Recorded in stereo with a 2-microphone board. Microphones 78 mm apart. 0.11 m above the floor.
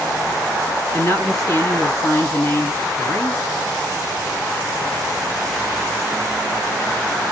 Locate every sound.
0.9 s a woman speaking: 40° left (ahead or behind), 1.6 m